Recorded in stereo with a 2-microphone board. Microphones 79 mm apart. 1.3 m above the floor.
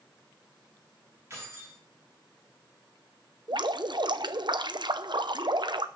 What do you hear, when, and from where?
1.3 s keys jangling: 30° right (ahead or behind), 8 m
3.5 s dripping: 65° right (ahead or behind), 0.8 m